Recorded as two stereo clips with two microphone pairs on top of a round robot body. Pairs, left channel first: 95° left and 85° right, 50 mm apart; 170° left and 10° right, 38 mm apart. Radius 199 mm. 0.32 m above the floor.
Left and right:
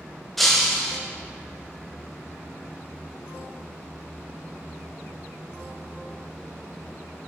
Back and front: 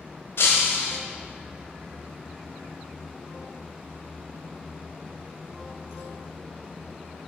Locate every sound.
0.4 s breaking glass: straight behind, 1.0 m